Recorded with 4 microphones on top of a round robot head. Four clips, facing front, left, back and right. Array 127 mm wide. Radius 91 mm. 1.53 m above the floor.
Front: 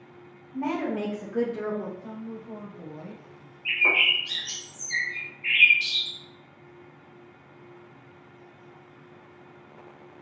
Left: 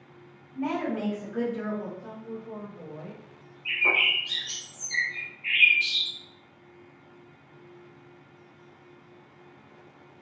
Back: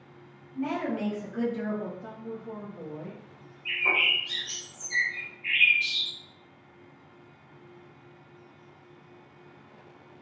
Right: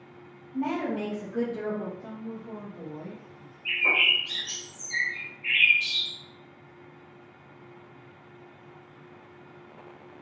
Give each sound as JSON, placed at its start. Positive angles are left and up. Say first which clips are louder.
{"t": 0.5, "sound": "a woman speaking", "louder": "even, front 2 dB", "azimuth_deg": -40, "distance_m": 1.1}
{"t": 2.0, "sound": "a woman speaking", "louder": "even, even", "azimuth_deg": -165, "distance_m": 1.6}
{"t": 3.6, "sound": "a bird", "louder": "even, front 3 dB", "azimuth_deg": 5, "distance_m": 1.1}